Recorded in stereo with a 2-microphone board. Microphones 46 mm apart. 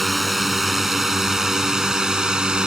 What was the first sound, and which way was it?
A drone, 5° right (ahead or behind).